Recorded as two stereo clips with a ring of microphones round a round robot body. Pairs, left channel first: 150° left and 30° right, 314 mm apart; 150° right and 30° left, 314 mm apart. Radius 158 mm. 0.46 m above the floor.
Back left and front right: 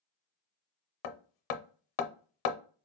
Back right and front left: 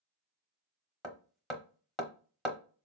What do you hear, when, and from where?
1.0 s hammering: 120° left, 0.6 m